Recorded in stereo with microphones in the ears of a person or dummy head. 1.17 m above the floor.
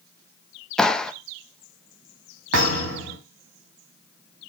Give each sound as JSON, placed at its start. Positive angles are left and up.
{"t": 0.8, "sound": "a clap", "side_deg": 0, "distance_m": 0.8}
{"t": 2.5, "sound": "a thud", "side_deg": -85, "distance_m": 4.5}